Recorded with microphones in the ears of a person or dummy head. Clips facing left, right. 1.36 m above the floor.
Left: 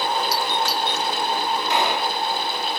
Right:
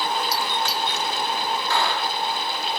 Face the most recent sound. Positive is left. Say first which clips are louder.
# left 2 dB
turn(degrees=15)  # may be behind; listen again after turning